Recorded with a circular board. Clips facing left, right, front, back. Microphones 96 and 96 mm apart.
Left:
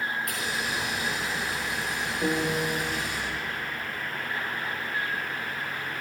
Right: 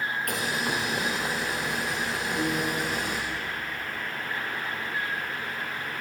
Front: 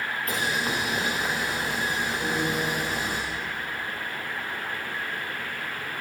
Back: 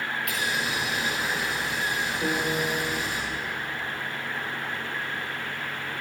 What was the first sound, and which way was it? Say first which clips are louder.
Boiling: right 2 dB, front 4 dB; 50° right.